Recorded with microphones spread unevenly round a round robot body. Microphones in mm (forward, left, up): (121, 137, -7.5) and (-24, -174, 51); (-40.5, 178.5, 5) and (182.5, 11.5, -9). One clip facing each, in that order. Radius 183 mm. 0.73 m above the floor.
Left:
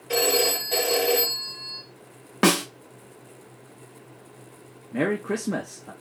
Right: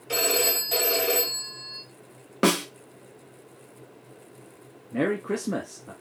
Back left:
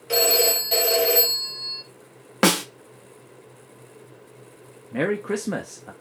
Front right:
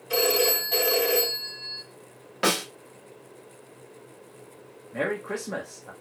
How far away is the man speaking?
About 0.8 m.